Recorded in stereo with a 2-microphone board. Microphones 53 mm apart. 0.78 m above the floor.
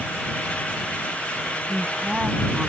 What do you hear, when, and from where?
1.7 s a woman speaking: 20° right (ahead or behind)